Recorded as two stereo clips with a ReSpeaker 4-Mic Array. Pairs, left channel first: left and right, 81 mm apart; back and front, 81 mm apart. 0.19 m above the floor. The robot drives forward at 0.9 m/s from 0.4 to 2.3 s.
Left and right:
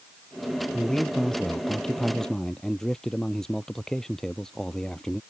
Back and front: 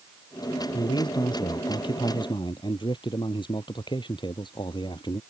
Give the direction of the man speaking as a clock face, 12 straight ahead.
6 o'clock.